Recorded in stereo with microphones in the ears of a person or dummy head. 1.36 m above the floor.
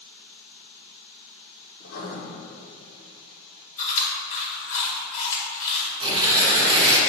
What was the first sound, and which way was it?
Writing, 55° left (ahead or behind).